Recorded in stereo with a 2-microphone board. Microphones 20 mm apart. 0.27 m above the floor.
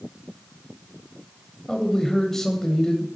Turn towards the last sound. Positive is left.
turn(degrees=20)  # may be behind; listen again after turning